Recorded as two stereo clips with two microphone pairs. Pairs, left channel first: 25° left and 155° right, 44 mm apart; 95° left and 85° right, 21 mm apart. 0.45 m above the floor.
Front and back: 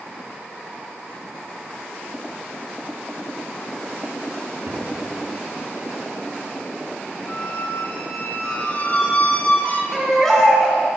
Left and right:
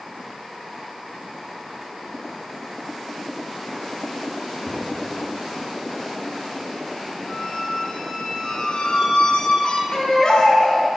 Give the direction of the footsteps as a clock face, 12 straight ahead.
6 o'clock.